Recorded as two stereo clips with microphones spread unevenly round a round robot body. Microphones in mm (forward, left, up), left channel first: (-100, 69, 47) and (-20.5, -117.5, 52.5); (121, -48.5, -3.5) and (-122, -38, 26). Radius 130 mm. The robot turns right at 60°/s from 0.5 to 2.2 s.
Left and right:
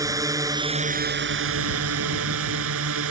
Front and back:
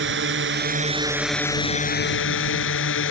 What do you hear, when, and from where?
0.0 s a drone: 140° right; by 3.1 s 40° right